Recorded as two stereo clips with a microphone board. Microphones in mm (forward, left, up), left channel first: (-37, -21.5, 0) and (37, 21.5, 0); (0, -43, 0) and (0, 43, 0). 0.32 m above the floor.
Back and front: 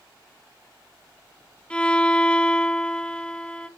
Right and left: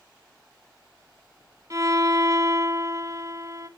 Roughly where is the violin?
Behind left.